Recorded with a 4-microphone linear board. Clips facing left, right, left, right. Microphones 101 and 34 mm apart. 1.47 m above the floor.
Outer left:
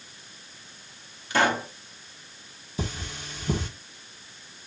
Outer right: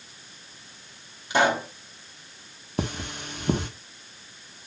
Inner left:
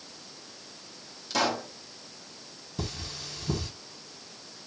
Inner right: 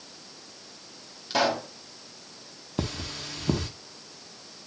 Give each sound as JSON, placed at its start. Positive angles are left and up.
{"t": 1.3, "sound": "a pop", "side_deg": -20, "distance_m": 2.0}
{"t": 2.8, "sound": "cutlery clinking", "side_deg": -65, "distance_m": 1.8}